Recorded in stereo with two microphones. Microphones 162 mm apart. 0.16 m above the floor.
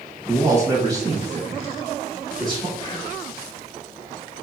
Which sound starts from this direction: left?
Whispering, at 2.8 s.